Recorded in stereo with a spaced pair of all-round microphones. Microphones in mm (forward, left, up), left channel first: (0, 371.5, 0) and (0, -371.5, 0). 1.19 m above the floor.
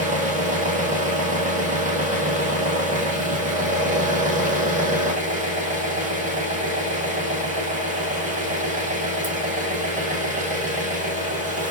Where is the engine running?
10° right (ahead or behind), 1.2 m.